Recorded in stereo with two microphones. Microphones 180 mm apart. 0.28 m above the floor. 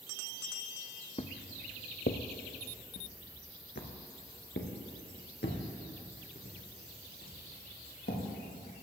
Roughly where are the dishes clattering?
I don't hear dishes clattering.